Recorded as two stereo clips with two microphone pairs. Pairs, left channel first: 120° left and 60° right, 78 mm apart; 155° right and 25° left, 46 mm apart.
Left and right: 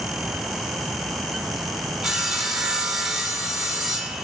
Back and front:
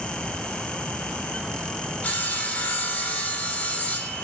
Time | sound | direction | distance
2.0 | sawing | 135° right | 1.4 m